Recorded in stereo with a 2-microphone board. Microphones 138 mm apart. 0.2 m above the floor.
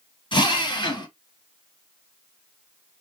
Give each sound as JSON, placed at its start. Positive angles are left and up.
{"t": 0.3, "sound": "a drill", "side_deg": 35, "distance_m": 1.8}